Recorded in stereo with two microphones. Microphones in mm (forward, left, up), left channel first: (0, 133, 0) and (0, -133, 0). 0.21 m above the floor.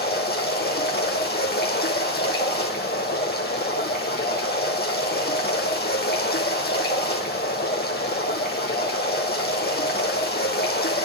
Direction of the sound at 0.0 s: 35° left (ahead or behind).